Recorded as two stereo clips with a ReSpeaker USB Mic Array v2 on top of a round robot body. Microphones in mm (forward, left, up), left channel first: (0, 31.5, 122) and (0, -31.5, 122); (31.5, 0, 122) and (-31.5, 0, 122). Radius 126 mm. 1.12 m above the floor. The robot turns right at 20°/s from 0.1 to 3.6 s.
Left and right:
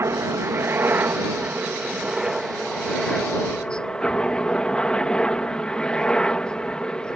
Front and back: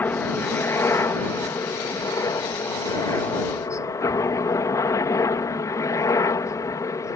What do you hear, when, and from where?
0.0 s a helicopter: 55° right; by 7.2 s 15° left